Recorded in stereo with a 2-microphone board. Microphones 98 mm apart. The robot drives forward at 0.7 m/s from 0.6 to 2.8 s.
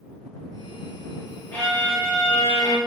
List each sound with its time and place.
1.5 s a violin: 20° left (ahead or behind), 1.4 m; by 2.8 s 40° left (ahead or behind), 0.8 m